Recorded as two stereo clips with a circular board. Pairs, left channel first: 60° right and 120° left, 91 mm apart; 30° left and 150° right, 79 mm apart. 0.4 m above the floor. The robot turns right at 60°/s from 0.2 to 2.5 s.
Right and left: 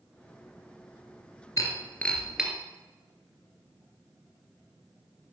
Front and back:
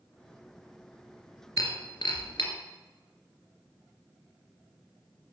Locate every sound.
1.6 s breaking glass: 10° right, 2.5 m; by 2.5 s 45° left, 2.5 m